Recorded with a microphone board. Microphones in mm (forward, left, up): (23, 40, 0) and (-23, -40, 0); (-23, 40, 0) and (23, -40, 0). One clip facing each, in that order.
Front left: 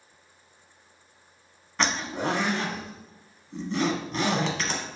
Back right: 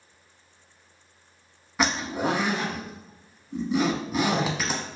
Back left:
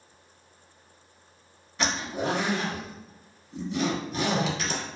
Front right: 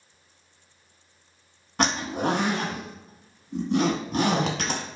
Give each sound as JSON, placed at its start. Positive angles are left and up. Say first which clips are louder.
{"t": 1.8, "sound": "a zipper", "louder": "back right 2 dB, front right 4 dB", "azimuth_deg": -40, "distance_m": 0.7}